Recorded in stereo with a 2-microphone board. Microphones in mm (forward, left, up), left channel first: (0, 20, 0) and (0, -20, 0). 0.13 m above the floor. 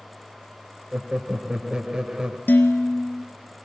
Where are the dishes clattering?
65° left (ahead or behind), 1.9 m.